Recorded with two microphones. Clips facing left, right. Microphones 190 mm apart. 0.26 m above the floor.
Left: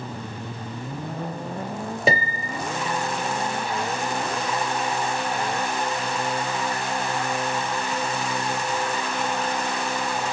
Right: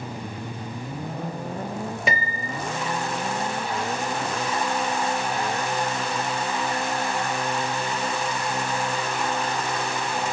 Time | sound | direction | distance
2.1 | a piano | 35° left (ahead or behind) | 0.8 m